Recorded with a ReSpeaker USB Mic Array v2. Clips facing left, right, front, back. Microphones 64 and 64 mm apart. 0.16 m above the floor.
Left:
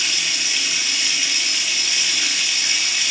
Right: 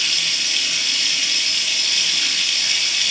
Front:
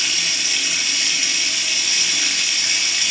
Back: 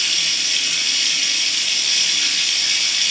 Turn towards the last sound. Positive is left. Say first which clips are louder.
# even, even
turn(degrees=45)